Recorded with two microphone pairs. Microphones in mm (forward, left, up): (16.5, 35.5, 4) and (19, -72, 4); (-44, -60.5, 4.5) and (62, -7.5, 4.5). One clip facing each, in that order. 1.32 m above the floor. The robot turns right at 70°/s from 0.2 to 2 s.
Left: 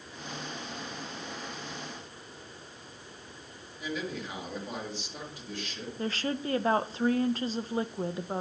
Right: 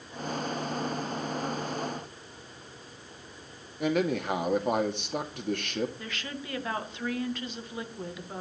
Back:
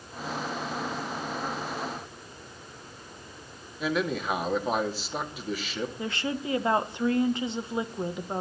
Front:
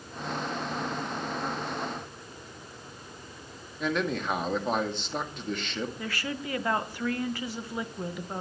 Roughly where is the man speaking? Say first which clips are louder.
Right 9 dB, back 1 dB; right.